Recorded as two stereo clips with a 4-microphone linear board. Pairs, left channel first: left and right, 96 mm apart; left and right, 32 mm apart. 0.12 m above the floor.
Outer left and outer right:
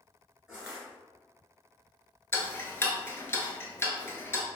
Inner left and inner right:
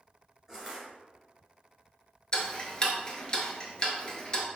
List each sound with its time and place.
0.5 s crushing: 10° right (ahead or behind), 1.8 m
2.3 s ticking: 25° left (ahead or behind), 0.6 m